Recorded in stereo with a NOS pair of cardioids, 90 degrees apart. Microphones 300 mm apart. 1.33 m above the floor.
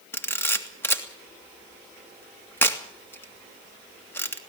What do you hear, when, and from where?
0.1 s a camera shutter: 5° left, 2 m